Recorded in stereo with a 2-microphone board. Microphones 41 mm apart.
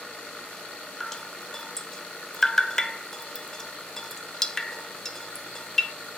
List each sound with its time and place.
1.0 s dripping: 10° left (ahead or behind), 0.8 m